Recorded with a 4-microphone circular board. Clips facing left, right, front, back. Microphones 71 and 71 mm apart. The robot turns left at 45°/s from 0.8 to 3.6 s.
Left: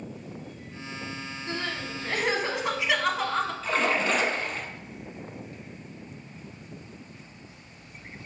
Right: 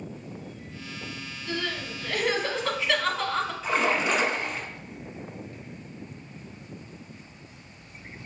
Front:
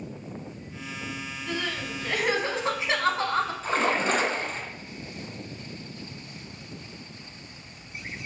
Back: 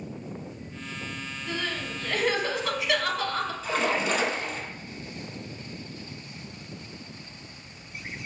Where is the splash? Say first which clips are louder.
Right 2 dB, back 1 dB; 20° right, 0.9 m.